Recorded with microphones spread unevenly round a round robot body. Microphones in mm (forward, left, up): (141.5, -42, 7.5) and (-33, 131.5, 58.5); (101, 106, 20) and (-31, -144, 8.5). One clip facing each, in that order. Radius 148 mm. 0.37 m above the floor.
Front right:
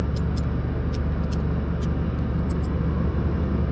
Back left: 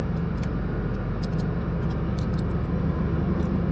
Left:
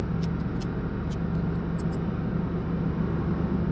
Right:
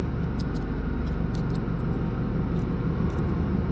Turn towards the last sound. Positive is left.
turn(degrees=-30)